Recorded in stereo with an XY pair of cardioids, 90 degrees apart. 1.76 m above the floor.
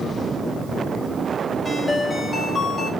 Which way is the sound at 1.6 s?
20° left.